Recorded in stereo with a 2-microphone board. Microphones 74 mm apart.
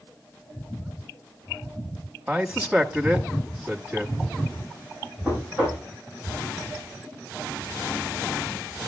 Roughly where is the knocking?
Centre.